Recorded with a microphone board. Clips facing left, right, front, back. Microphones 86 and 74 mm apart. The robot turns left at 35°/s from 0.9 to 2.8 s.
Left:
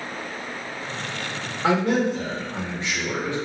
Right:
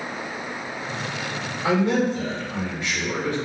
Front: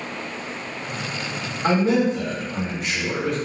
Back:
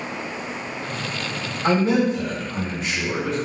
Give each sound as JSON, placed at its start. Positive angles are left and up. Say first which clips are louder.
{"t": 1.6, "sound": "a man speaking", "louder": "even, even", "azimuth_deg": 70, "distance_m": 1.4}